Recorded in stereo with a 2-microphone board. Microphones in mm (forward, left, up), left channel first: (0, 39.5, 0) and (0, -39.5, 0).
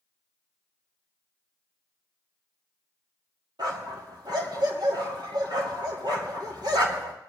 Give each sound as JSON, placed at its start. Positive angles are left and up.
{"t": 3.6, "sound": "a dog barking", "side_deg": -65, "distance_m": 2.5}